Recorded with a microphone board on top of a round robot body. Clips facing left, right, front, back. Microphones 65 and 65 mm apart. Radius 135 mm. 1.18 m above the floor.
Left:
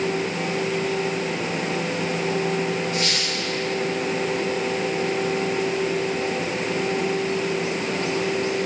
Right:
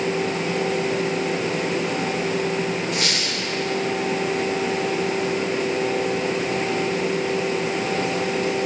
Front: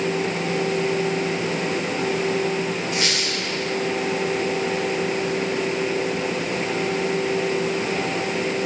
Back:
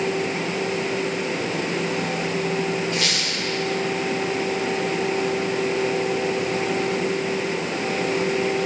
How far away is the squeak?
About 1.7 m.